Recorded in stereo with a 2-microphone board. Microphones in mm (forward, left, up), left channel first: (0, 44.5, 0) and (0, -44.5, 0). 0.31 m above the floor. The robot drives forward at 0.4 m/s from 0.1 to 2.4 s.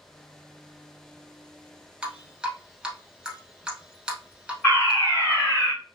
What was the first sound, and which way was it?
Dripping, 15° right (ahead or behind).